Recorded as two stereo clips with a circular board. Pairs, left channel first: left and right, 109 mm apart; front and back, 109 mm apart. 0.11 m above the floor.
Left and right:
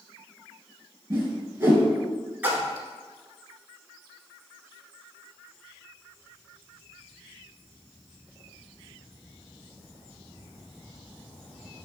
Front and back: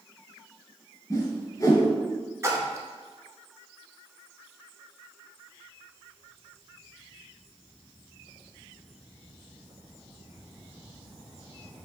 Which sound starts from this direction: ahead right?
A whoosh, at 1.1 s.